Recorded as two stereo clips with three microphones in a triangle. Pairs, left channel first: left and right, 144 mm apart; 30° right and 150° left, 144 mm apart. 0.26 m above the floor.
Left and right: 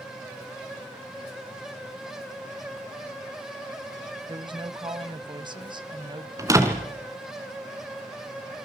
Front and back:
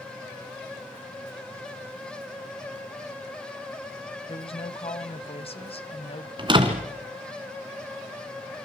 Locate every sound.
4.3 s a woman speaking: 50° right, 1.4 m
6.4 s a door slam: 155° right, 2.5 m